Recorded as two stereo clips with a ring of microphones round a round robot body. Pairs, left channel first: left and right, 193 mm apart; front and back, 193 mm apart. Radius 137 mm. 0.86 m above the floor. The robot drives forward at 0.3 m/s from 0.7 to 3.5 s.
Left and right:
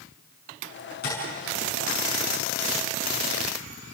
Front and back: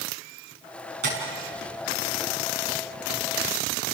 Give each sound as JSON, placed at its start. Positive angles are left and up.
{"t": 1.0, "sound": "tapping", "azimuth_deg": 150, "distance_m": 6.0}